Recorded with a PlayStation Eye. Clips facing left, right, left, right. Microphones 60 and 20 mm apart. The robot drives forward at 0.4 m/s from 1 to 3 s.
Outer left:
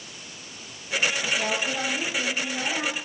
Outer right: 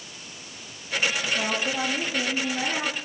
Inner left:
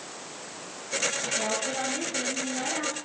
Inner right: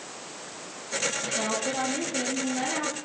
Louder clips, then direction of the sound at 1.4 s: Even, inner right 1 dB; 20° right (ahead or behind).